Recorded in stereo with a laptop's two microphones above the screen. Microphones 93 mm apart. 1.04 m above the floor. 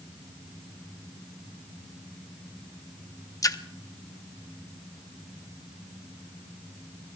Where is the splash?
40° left (ahead or behind), 0.7 m.